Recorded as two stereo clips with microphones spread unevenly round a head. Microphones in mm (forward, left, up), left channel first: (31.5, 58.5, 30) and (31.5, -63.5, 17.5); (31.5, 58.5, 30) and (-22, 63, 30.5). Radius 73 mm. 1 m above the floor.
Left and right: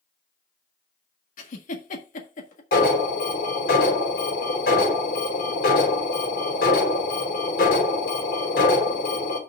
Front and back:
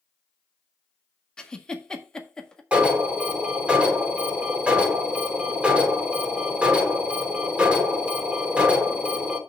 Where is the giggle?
70° left, 1.7 m.